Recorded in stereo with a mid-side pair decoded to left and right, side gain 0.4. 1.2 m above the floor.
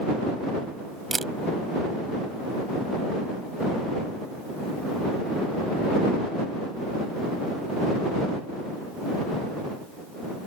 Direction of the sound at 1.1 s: 25° right.